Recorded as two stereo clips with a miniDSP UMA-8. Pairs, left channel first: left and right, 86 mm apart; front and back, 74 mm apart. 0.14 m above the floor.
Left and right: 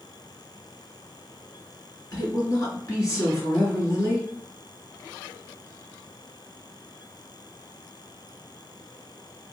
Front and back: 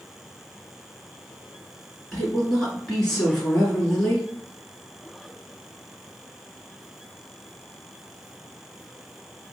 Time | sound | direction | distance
2.1 | a woman speaking | 80° left | 1.7 m